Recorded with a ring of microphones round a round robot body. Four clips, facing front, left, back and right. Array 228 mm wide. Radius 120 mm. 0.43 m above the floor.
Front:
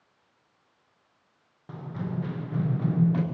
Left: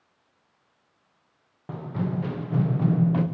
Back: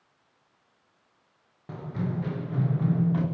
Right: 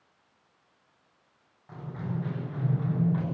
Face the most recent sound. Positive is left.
turn(degrees=80)